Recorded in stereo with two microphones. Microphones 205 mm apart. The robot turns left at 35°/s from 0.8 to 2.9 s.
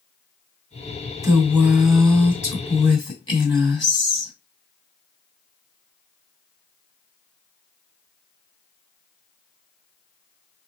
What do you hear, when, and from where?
1.2 s a woman speaking: 155° right, 1.6 m; by 4.3 s 150° left, 1.6 m